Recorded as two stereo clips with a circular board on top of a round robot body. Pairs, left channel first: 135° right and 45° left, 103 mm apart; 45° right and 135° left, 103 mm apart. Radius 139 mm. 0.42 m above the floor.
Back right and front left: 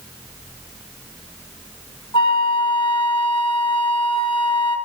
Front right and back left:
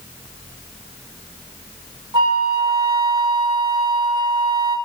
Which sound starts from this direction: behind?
A flute, at 2.1 s.